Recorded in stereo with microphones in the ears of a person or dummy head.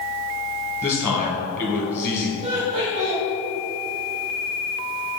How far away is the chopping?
I don't hear chopping.